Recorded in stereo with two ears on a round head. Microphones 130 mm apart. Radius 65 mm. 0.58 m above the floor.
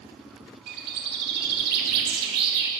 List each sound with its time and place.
0.7 s a bird: 75° right (ahead or behind), 1.0 m